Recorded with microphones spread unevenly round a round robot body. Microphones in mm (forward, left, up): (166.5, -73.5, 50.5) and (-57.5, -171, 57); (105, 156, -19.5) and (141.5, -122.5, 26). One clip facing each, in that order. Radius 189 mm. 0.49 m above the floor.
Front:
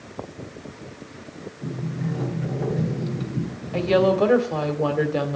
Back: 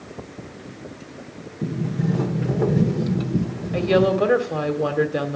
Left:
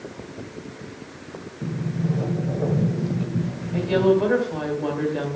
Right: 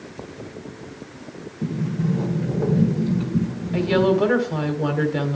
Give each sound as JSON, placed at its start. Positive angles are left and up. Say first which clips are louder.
{"t": 1.6, "sound": "a sliding door", "louder": "back 6 dB, right 3 dB", "azimuth_deg": -155, "distance_m": 1.3}
{"t": 3.7, "sound": "a woman speaking", "louder": "back 1 dB, even", "azimuth_deg": -85, "distance_m": 1.7}